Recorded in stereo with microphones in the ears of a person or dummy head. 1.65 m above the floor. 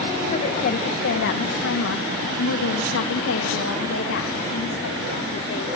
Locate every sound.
0.3 s a woman speaking: 40° left (ahead or behind), 2 m; by 5.7 s 65° left (ahead or behind), 5 m